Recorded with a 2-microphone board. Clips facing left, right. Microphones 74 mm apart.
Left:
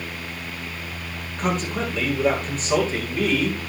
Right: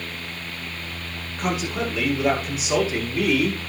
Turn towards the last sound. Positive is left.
turn(degrees=-10)  # may be behind; listen again after turning